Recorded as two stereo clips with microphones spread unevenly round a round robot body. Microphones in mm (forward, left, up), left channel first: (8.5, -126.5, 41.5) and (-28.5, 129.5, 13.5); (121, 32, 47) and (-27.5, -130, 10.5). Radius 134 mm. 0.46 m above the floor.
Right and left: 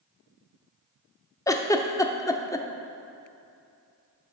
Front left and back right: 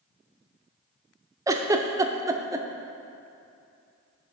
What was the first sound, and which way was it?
A giggle, 155° right.